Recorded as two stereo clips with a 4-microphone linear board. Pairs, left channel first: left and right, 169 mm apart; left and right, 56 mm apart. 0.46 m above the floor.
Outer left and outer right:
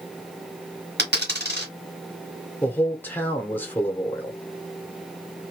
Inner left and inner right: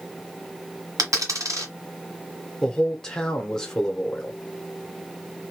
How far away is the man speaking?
About 0.9 m.